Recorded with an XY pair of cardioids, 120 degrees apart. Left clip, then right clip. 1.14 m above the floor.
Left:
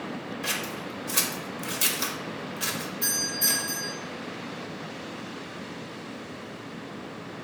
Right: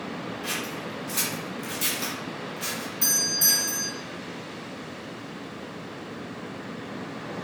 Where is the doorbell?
65° right, 1.6 m.